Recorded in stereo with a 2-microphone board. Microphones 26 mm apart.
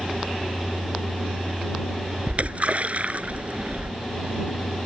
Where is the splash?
55° right (ahead or behind).